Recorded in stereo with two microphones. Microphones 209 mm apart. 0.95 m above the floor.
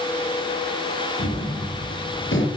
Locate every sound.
1.2 s a gunshot: 70° left (ahead or behind), 6 m